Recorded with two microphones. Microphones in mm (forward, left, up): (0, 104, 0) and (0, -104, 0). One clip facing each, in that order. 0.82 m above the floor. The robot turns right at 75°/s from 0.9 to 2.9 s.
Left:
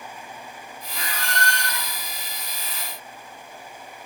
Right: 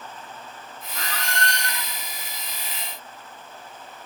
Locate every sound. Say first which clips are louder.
0.9 s a squeak: even; 5° left, 1.6 m; by 1.9 s 80° left, 1.6 m